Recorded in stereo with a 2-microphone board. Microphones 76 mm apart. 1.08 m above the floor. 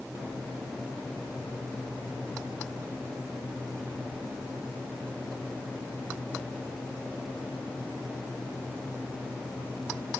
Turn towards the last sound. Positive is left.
No sound to turn to.